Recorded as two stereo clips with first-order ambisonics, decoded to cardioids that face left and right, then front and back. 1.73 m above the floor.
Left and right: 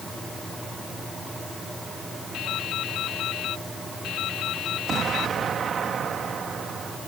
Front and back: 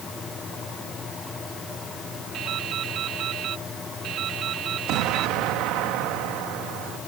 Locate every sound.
2.3 s dripping: 135° left
4.9 s an explosion: 155° right